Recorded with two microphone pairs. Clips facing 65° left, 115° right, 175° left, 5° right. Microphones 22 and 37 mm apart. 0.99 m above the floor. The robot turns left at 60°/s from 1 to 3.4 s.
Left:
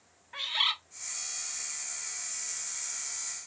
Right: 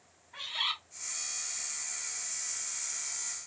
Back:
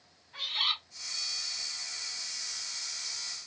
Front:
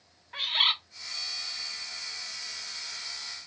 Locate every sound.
0.3 s a bird: 30° left, 1.2 m